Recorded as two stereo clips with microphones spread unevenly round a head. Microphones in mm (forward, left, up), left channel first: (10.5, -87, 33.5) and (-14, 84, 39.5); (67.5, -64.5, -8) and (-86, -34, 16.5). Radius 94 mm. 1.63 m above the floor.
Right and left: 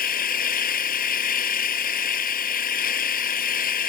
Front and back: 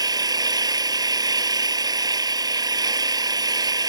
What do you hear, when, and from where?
0.0 s an engine running: 125° right